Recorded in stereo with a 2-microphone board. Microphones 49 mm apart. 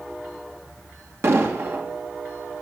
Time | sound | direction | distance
1.2 | an explosion | 55° right (ahead or behind) | 2 m